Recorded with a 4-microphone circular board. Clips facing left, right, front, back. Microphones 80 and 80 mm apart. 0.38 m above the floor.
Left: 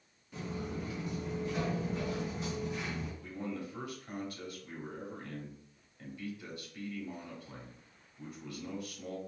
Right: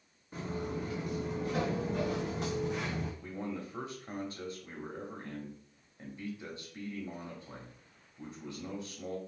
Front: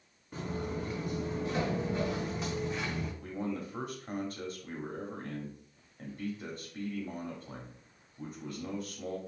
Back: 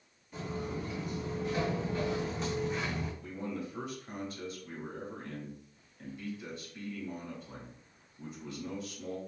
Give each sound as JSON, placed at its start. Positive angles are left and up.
{"t": 0.3, "sound": "footsteps", "azimuth_deg": -40, "distance_m": 2.5}
{"t": 3.2, "sound": "a man speaking", "azimuth_deg": -30, "distance_m": 1.4}